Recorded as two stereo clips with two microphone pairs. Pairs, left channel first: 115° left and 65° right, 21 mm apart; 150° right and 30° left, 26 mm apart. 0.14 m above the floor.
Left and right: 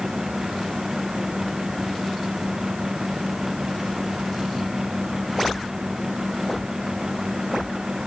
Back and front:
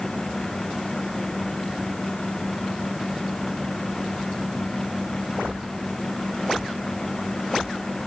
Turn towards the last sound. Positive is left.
No sound to turn to.